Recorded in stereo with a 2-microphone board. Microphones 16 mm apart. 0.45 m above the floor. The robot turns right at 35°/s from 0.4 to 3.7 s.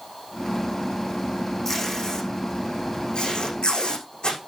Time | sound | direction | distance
1.6 | tape being pulled | 15° left (ahead or behind) | 6.5 m